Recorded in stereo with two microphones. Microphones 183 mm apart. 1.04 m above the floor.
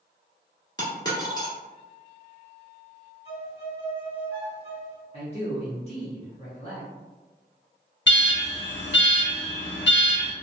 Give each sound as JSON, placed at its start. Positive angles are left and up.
{"t": 0.8, "sound": "a dropped coin", "side_deg": 25, "distance_m": 1.3}
{"t": 3.2, "sound": "a violin", "side_deg": 35, "distance_m": 1.2}
{"t": 5.1, "sound": "a man speaking", "side_deg": 35, "distance_m": 0.7}
{"t": 8.1, "sound": "an alarm", "side_deg": 90, "distance_m": 0.6}